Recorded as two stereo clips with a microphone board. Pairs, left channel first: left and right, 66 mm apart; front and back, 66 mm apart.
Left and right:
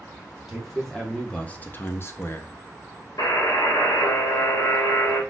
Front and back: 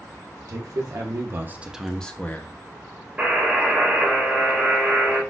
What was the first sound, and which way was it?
A man speaking, straight behind.